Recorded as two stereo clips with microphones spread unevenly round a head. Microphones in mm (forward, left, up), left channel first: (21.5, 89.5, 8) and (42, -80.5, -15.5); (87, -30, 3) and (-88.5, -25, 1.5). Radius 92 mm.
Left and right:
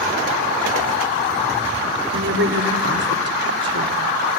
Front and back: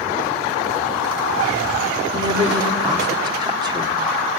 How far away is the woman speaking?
About 2.5 m.